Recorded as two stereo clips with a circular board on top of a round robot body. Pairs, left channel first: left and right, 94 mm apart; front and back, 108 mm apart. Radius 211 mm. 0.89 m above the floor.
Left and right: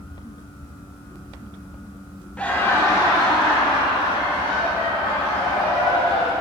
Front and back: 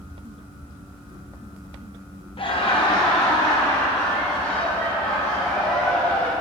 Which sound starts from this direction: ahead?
Laughter, at 2.4 s.